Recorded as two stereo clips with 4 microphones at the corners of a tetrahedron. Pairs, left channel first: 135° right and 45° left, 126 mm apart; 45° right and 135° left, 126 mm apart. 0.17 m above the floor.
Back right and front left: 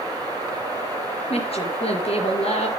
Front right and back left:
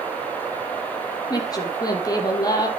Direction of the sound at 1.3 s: 105° right.